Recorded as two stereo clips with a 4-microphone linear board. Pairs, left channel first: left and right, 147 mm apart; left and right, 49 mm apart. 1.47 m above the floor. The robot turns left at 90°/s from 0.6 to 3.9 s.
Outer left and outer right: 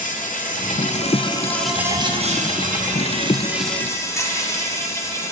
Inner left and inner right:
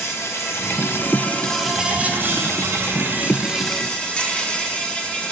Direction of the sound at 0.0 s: 95° left.